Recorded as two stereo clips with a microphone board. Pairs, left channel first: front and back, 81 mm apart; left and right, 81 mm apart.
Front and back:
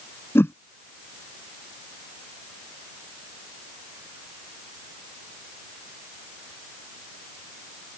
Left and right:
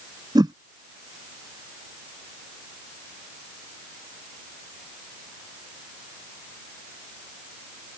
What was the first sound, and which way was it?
A whoosh, 60° right.